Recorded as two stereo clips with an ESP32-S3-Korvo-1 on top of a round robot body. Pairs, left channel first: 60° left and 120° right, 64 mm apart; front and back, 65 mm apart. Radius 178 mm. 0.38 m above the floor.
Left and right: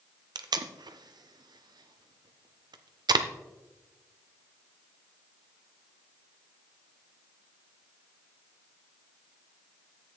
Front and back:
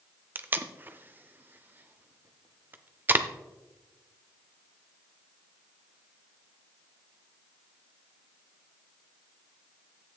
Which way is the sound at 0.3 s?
120° right.